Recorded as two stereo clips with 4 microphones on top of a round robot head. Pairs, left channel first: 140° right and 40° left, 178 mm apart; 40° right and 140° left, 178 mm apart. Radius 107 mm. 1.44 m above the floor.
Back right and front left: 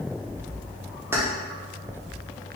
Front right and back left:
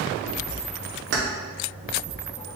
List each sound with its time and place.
1.1 s keys jangling: 115° left, 0.6 m